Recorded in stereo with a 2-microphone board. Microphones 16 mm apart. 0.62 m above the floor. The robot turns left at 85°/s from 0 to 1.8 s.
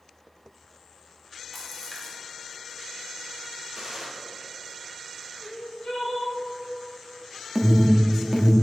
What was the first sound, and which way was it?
A splash, centre (ahead or behind).